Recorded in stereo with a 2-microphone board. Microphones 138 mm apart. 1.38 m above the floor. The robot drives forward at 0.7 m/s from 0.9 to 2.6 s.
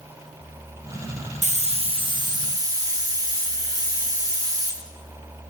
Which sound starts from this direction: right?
A hiss, at 1.4 s.